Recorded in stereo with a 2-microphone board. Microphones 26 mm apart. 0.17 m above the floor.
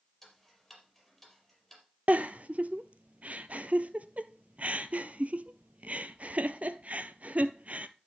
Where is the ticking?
5° left (ahead or behind), 4.5 m.